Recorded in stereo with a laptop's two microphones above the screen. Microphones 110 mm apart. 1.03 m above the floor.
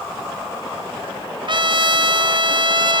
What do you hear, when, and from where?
1.5 s a trumpet: 50° right (ahead or behind), 0.7 m